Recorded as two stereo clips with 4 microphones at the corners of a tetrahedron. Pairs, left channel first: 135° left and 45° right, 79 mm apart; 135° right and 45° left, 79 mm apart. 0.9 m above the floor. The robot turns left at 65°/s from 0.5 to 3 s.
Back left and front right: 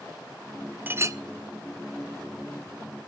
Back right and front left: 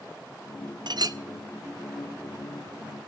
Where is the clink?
20° left, 0.6 m; by 1.2 s straight ahead, 0.6 m.